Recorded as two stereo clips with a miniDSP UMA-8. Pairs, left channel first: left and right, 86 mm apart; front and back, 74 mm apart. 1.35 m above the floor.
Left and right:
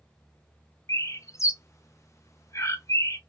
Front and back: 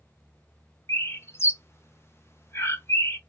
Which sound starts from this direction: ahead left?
A bird, at 0.9 s.